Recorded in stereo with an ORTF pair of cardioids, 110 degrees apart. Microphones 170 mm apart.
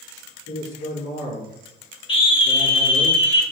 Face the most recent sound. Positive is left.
turn(degrees=30)